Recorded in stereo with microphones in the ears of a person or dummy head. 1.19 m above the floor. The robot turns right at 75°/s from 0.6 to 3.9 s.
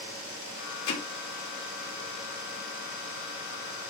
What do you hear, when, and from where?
0.9 s hammering: 80° left, 2.0 m; by 1.0 s 90° left, 2.0 m